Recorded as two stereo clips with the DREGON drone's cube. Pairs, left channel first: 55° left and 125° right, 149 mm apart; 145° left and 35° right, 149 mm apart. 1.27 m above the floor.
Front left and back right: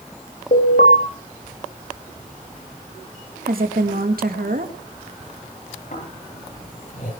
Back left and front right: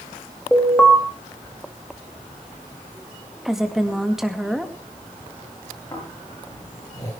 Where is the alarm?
60° left, 3.5 m.